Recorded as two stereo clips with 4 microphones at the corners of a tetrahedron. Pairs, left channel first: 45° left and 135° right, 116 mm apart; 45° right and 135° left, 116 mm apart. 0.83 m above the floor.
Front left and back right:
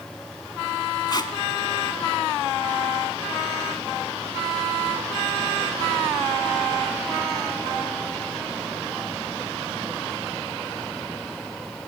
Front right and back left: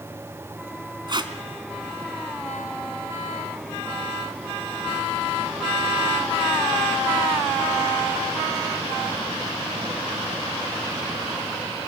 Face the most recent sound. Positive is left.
turn(degrees=90)